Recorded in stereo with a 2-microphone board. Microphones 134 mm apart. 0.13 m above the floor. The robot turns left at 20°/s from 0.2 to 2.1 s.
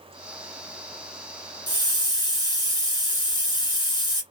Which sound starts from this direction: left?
A hiss, at 1.7 s.